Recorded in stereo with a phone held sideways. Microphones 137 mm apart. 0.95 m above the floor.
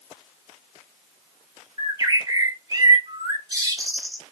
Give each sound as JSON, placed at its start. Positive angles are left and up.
{"t": 1.8, "sound": "a bird", "side_deg": -30, "distance_m": 1.0}